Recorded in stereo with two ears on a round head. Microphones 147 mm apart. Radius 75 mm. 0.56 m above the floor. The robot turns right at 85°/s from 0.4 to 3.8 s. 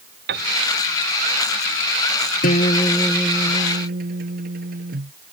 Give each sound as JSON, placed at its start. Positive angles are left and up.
{"t": 0.3, "sound": "a piano", "side_deg": -60}
{"t": 2.4, "sound": "a guitar", "azimuth_deg": 125}